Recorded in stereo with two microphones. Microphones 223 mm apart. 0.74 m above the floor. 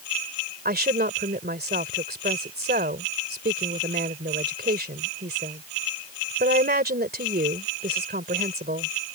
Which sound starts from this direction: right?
A woman speaking, at 0.7 s.